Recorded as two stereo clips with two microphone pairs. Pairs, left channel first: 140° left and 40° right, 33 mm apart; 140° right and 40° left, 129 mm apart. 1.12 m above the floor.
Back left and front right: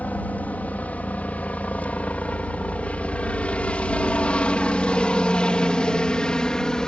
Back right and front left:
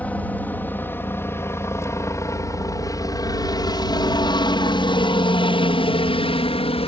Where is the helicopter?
145° left; by 6.9 s 160° right.